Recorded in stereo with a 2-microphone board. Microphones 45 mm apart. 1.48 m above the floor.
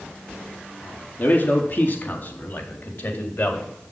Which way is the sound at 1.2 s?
50° left (ahead or behind).